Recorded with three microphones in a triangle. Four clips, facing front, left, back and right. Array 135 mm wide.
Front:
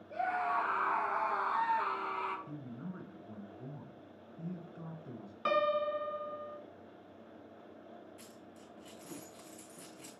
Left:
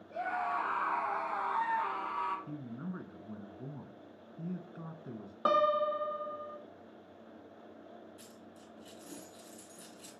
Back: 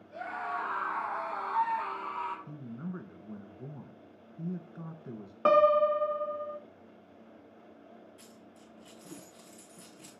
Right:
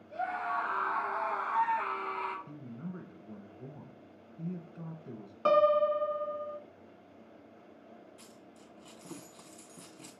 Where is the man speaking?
130° left, 1.8 m.